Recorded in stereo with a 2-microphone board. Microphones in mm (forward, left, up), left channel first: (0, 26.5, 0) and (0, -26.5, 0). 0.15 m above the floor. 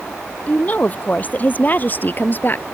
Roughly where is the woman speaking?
Left.